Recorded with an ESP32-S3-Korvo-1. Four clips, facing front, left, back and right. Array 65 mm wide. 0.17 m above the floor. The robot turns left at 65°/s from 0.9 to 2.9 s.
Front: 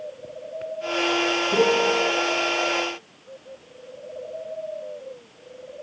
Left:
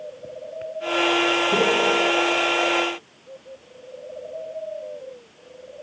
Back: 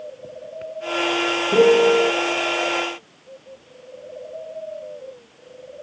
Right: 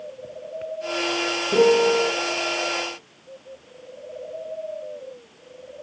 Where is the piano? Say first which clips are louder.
Right 7 dB, back 7 dB; 145° right, 0.8 m; by 2.1 s 175° left, 0.8 m.